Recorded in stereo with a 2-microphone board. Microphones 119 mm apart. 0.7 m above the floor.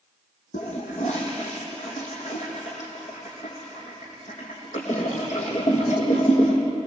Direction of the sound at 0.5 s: 70° left (ahead or behind).